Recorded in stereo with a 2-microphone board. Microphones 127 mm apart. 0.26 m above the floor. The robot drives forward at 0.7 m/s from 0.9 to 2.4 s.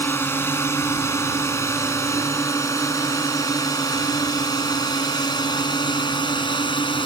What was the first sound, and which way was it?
A drone, 20° left (ahead or behind).